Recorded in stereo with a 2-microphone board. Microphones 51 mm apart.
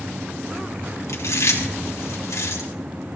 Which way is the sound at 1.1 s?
80° left.